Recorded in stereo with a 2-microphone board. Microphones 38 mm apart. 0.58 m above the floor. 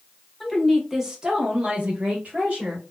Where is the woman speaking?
Centre (ahead or behind), 0.9 m; by 2.8 s 40° right (ahead or behind), 1.3 m.